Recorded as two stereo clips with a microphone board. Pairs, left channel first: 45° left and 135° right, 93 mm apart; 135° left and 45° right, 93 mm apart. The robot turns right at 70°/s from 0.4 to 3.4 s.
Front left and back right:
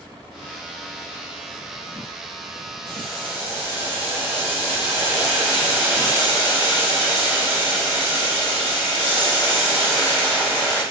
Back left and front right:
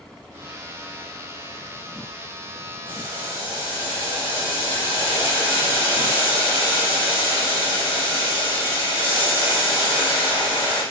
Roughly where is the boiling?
Behind left.